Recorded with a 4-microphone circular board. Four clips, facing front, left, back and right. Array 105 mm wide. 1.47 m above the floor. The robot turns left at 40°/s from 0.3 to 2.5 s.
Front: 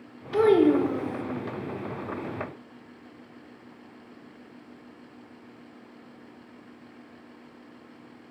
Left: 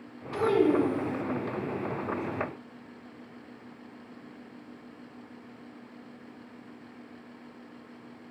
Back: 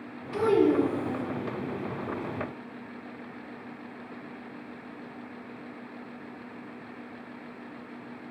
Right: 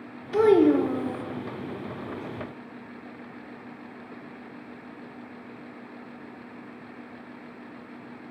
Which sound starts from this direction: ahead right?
A child speaking, at 0.3 s.